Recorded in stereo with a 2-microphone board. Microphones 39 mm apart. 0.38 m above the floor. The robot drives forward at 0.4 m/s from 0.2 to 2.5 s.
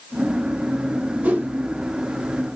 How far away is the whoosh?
About 0.6 m.